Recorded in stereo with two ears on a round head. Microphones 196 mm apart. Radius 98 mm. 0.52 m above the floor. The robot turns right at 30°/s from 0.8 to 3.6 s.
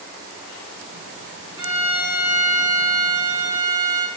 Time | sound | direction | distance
1.6 | a violin | 145° right | 1.2 m